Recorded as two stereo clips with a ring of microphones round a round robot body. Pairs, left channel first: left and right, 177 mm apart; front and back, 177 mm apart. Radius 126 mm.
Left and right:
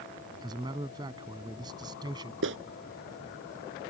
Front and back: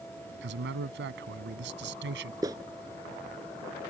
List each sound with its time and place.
0.4 s a man speaking: 160° right
2.4 s a clap: 105° right